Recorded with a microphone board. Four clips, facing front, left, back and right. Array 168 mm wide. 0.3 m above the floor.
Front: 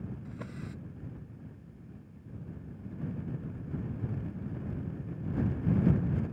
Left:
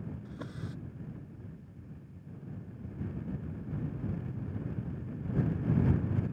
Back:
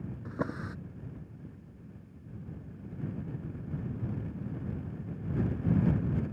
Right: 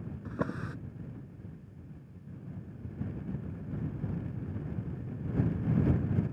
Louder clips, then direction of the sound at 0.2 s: Right 7 dB, back 7 dB; 135° right.